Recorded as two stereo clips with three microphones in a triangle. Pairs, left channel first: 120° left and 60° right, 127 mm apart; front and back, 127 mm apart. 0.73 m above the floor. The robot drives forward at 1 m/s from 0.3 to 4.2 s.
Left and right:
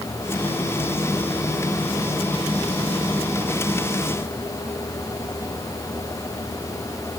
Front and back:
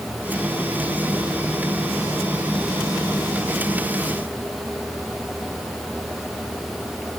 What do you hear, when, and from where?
Only background noise.